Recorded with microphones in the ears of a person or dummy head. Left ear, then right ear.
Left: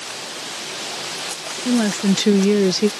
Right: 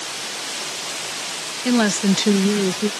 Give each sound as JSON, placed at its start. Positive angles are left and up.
{"t": 1.6, "sound": "a woman speaking", "side_deg": -40}